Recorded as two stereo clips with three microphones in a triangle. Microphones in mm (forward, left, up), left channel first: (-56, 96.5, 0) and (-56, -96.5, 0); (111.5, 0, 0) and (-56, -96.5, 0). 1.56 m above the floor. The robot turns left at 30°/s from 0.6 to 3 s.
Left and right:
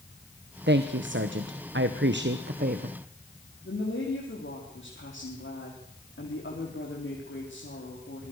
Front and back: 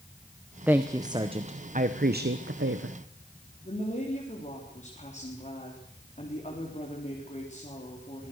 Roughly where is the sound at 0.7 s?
Right.